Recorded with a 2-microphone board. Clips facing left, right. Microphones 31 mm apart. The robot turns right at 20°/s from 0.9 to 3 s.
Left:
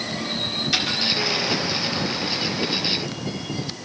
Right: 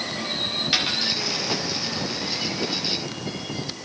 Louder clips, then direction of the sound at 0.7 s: Even; 25° right (ahead or behind).